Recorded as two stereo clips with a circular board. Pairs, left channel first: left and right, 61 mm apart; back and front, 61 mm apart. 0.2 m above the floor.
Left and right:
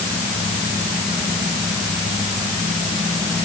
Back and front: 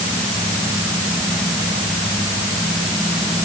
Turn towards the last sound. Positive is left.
No sound to turn to.